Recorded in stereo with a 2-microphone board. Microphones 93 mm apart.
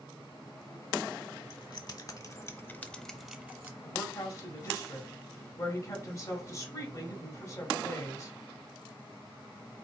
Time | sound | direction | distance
1.5 | keys jangling | 55° left (ahead or behind) | 1.0 m
3.8 | a woman speaking | 30° left (ahead or behind) | 1.9 m